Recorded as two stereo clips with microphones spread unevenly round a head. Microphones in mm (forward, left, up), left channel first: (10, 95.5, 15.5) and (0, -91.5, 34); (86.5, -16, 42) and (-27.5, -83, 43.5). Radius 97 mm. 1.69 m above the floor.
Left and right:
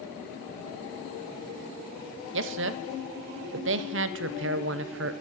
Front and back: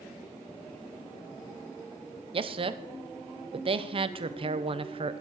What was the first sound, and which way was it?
A man speaking, 105° right.